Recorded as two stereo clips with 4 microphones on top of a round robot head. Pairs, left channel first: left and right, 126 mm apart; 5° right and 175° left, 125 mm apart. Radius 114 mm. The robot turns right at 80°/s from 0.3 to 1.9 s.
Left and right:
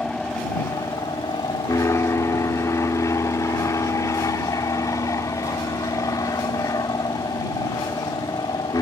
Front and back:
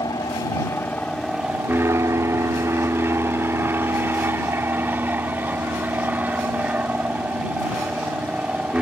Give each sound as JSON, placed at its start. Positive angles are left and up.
{"t": 0.0, "sound": "an aircraft", "azimuth_deg": 10}